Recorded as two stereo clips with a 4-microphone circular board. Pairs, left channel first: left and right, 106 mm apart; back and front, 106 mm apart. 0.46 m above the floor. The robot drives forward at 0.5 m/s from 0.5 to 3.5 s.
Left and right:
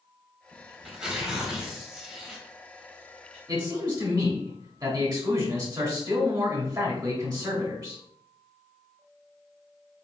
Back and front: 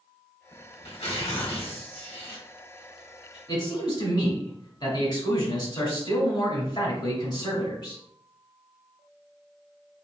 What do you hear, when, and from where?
0.5 s tearing paper: 170° right, 0.9 m; by 3.4 s 175° right, 2.5 m
3.5 s a man speaking: 140° right, 1.5 m